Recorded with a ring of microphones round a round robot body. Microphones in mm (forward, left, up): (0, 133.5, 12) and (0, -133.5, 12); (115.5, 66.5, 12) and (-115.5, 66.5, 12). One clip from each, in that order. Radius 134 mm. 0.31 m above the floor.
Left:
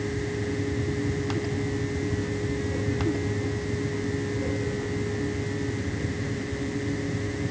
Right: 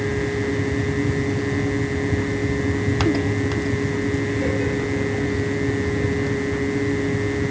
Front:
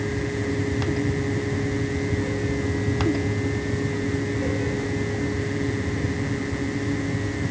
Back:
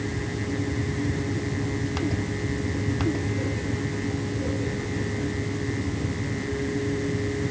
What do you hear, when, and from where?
Only background noise.